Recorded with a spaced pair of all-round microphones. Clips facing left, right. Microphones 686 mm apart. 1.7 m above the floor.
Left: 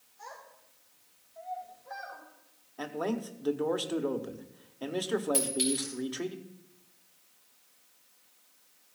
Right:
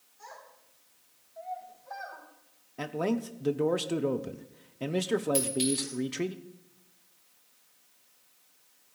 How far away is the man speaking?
About 0.8 m.